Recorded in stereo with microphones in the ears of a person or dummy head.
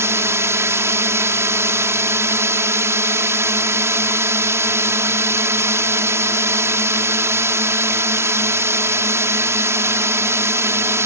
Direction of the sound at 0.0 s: 15° right (ahead or behind).